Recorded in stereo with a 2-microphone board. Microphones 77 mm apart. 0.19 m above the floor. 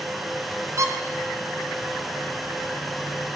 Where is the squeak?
45° right (ahead or behind), 1.2 m.